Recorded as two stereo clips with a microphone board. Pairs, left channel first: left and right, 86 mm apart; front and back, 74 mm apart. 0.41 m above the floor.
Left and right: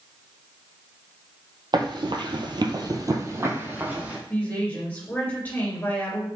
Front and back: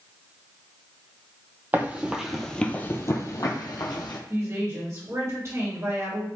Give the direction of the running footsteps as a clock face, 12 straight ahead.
4 o'clock.